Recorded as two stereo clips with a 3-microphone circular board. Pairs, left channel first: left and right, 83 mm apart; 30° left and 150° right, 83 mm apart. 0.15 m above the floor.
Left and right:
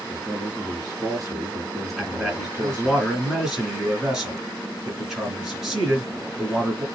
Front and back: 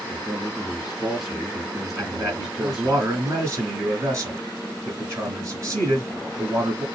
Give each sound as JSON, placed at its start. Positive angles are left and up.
{"t": 0.1, "sound": "a man speaking", "azimuth_deg": -65, "distance_m": 1.7}
{"t": 2.0, "sound": "a man speaking", "azimuth_deg": -170, "distance_m": 1.9}